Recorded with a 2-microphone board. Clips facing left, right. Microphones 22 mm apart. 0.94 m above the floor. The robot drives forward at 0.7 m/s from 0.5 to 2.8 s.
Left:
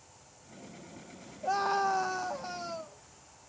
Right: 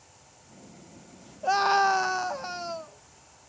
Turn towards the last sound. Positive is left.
turn(degrees=-25)  # may be behind; listen again after turning